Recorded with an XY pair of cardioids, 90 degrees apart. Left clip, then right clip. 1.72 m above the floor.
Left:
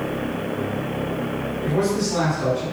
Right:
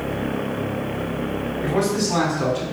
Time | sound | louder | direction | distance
1.6 | a man speaking | right 1 dB | 70° right | 4 m